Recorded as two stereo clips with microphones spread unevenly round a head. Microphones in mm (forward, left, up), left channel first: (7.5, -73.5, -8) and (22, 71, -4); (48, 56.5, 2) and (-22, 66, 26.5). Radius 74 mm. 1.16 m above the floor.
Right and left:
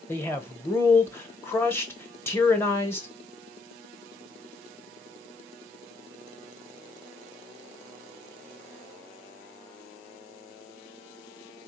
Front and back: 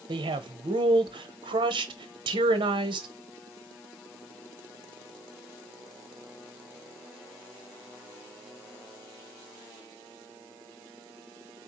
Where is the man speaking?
170° right, 1.0 m.